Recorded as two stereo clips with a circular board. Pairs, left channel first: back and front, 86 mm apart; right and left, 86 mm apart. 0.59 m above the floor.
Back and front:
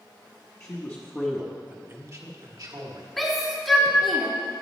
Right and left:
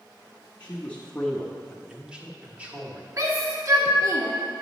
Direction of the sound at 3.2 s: 90° left.